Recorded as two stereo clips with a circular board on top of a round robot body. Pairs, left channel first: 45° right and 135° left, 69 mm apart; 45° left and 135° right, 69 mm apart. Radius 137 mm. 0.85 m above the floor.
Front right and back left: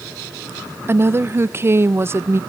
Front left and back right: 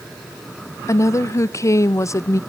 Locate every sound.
0.9 s a woman speaking: 85° left, 0.6 m